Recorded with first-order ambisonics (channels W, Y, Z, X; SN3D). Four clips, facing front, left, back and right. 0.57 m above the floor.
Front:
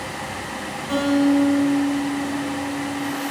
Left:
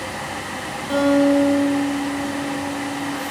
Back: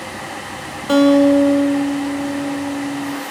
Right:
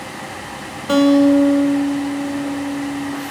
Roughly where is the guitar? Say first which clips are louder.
Right 4 dB, back 7 dB; behind right.